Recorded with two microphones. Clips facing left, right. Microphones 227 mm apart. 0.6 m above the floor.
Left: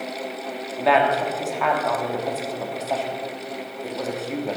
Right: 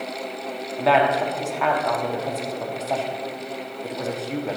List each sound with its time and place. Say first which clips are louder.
0.8 s a woman speaking: even; centre (ahead or behind), 1.0 m